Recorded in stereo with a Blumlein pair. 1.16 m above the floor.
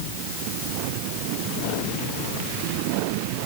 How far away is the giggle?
I don't hear a giggle.